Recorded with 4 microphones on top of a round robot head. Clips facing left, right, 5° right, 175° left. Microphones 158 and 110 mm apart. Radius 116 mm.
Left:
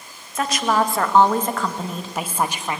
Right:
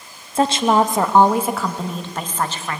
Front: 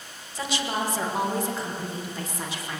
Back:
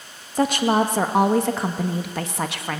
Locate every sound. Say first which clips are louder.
0.3 s a woman speaking: right 5 dB, back 10 dB; 150° right, 1.5 m; by 2.8 s 160° left, 1.6 m